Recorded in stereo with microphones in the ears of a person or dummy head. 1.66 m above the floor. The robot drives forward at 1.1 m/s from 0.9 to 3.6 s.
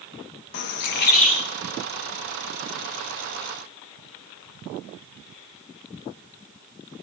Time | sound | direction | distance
0.5 | a bird | 60° left (ahead or behind) | 1.0 m